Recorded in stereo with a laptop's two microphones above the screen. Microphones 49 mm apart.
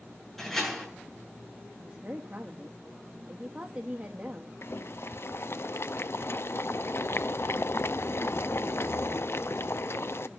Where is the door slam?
5° left (ahead or behind), 8 m.